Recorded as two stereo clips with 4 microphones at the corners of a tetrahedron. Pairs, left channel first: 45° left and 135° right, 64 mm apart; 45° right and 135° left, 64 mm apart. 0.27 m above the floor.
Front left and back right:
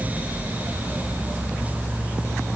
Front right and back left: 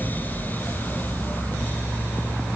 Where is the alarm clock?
No alarm clock in this recording.